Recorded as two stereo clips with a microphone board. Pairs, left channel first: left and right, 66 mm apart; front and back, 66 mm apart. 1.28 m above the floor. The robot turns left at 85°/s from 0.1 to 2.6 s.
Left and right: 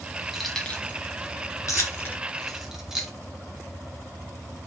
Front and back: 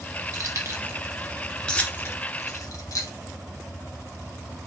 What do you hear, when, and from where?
0.3 s keys jangling: 175° right, 0.6 m; by 3.1 s 5° right, 0.6 m